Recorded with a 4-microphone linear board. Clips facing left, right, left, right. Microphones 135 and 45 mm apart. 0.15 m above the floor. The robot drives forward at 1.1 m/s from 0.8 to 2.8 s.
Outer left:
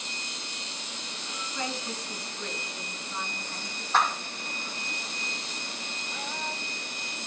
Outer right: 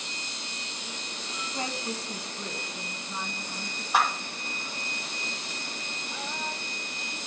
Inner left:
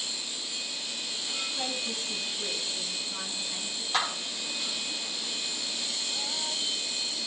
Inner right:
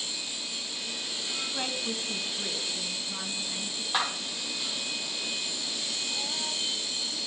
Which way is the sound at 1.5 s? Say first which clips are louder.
Outer right 1 dB, inner right 1 dB; 30° right (ahead or behind).